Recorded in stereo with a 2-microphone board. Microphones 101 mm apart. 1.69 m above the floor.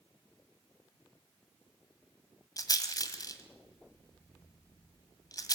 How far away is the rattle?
About 2 m.